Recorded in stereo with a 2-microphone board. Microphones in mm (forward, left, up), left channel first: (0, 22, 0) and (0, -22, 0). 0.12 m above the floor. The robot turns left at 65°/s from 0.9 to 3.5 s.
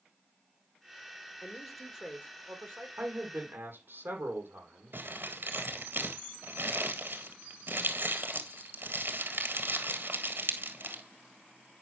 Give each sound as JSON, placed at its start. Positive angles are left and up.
{"t": 1.4, "sound": "a man speaking", "azimuth_deg": 25, "distance_m": 3.0}
{"t": 3.0, "sound": "a man speaking", "azimuth_deg": -85, "distance_m": 4.5}
{"t": 4.9, "sound": "crumpling", "side_deg": -60, "distance_m": 1.9}